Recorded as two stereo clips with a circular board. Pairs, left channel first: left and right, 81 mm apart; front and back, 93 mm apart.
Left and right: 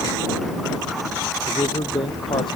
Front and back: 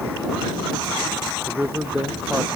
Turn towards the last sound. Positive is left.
turn(degrees=100)